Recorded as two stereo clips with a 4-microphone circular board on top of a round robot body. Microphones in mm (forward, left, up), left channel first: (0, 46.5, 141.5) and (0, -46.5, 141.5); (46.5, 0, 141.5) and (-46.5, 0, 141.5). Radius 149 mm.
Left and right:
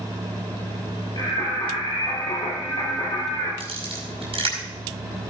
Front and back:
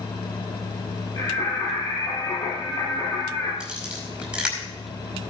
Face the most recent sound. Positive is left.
turn(degrees=-100)